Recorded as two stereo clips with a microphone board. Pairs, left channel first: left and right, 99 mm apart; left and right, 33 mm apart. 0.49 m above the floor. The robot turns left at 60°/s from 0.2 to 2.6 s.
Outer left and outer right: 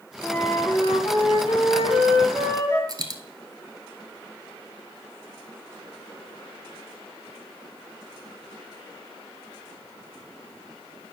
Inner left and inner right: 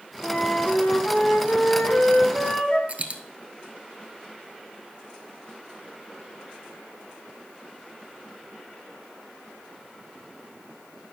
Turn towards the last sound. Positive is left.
turn(degrees=-45)  # may be behind; listen again after turning